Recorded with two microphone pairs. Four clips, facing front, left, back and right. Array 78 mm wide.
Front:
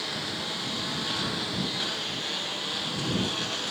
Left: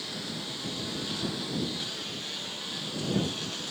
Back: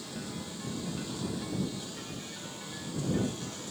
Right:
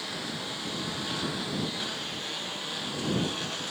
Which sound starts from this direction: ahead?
A lawn mower, at 0.0 s.